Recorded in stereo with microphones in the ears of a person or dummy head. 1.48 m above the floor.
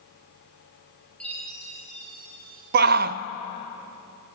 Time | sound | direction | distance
1.2 | a chime | centre (ahead or behind) | 1.8 m
2.7 | a shout | 50° right (ahead or behind) | 0.5 m